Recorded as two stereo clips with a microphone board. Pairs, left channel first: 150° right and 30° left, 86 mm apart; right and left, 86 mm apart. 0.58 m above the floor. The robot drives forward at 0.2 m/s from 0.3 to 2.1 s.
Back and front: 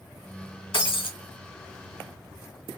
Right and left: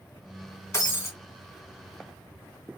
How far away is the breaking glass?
About 2 m.